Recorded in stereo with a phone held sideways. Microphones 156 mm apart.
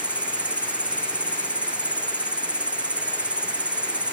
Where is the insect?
5° right (ahead or behind).